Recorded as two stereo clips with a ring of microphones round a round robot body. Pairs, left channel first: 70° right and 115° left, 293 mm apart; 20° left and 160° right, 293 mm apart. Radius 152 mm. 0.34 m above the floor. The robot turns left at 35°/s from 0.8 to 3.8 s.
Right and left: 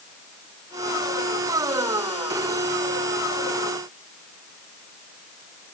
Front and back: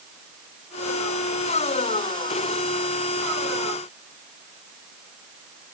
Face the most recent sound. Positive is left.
No sound to turn to.